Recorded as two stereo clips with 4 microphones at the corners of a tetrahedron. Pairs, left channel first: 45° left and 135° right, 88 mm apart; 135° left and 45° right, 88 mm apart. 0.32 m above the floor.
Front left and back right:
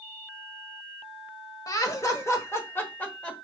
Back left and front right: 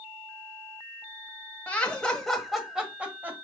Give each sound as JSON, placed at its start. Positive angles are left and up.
{"t": 1.7, "sound": "laughter", "azimuth_deg": 65, "distance_m": 1.4}